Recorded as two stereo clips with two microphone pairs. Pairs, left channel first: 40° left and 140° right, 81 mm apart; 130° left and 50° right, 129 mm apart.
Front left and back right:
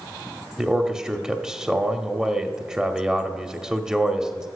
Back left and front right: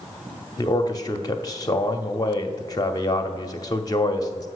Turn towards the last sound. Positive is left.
turn(degrees=150)